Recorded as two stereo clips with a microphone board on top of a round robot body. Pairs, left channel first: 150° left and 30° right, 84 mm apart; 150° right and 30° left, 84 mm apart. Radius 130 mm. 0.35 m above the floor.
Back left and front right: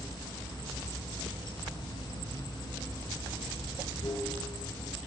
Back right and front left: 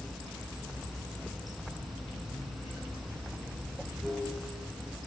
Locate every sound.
0.0 s running water: 120° left, 5 m